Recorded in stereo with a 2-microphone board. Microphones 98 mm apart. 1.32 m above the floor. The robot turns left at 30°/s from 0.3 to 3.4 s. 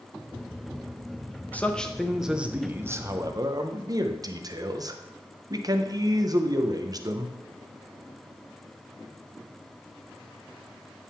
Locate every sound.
1.5 s a man speaking: 15° left, 0.7 m; by 7.3 s 40° right, 0.7 m